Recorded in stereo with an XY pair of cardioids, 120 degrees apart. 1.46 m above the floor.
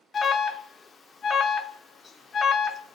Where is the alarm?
40° left, 0.6 m.